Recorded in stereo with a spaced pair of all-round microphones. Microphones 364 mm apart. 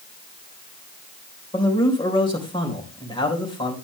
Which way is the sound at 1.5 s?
15° left (ahead or behind).